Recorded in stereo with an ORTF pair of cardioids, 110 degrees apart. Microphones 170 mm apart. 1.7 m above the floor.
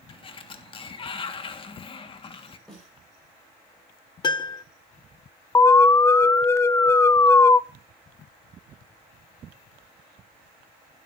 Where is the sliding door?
30° left, 1.7 m.